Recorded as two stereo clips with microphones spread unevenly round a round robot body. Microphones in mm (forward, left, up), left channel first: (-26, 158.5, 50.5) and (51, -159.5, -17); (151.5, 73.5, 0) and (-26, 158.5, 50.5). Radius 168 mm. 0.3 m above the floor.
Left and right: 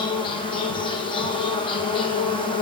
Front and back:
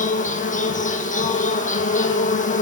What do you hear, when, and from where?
0.0 s an insect: 30° left, 1.7 m